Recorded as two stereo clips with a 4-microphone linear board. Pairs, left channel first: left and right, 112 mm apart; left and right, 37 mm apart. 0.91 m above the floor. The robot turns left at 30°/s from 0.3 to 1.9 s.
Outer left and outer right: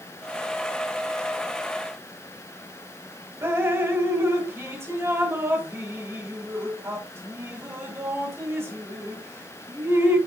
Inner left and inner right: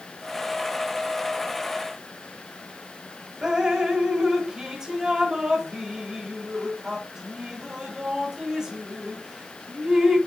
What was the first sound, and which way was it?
Dripping, 20° right (ahead or behind).